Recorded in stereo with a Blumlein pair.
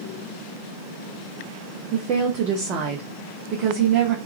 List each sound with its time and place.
1.9 s a woman speaking: 35° right, 0.6 m